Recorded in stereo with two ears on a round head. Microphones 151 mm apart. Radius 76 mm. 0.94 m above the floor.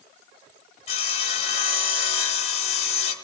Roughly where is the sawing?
Left.